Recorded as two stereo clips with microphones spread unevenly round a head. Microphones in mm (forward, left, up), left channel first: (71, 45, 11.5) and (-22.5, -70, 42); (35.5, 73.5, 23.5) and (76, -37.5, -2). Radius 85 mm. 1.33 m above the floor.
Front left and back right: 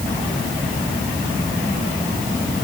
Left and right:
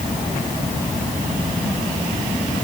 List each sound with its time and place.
Only background noise.